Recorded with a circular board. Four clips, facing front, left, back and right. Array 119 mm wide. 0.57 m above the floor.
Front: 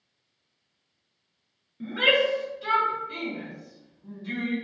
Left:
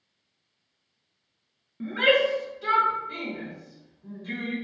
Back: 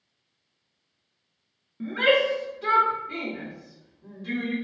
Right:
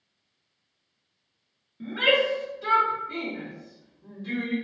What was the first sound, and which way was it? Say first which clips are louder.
A shout: left 2 dB, back 2 dB; 130° left.